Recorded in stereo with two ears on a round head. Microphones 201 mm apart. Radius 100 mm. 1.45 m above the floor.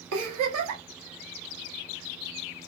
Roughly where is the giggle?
Right.